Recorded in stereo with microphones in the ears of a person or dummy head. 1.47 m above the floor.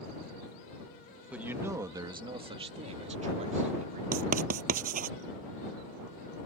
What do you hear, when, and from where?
1.3 s a man speaking: centre (ahead or behind); by 4.0 s 35° right (ahead or behind)
4.1 s writing: 40° right (ahead or behind)